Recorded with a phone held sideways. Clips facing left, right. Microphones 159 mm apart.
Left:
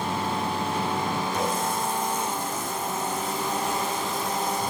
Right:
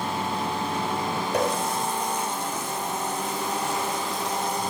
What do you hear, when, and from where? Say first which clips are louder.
1.3 s a running tap: right 2 dB; 65° right (ahead or behind), 5 m